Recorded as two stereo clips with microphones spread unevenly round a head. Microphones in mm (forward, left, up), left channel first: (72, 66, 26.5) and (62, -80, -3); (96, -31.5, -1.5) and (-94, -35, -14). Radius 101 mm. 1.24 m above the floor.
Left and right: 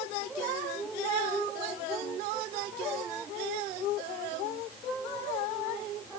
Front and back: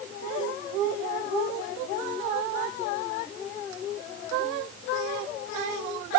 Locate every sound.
Only background noise.